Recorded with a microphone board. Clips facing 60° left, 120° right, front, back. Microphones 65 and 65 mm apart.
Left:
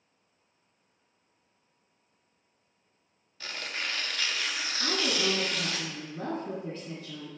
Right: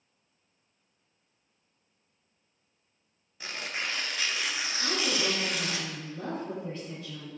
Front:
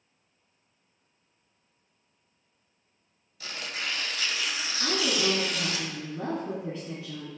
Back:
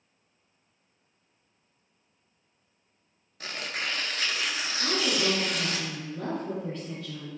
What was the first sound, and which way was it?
Tearing paper, 170° left.